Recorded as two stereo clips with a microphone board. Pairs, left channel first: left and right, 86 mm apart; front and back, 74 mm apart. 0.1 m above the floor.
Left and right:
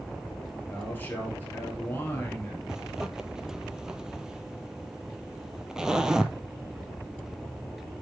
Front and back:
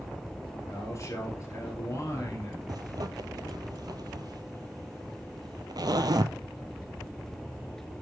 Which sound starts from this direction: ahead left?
A man speaking, at 0.7 s.